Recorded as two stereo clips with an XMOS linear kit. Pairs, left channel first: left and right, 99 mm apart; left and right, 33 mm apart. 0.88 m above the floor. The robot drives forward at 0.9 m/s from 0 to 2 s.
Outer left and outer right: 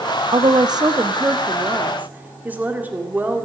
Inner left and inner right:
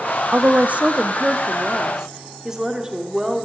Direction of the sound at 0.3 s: 65° right (ahead or behind).